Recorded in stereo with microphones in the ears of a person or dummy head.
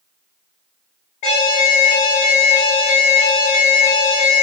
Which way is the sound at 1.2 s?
45° left (ahead or behind).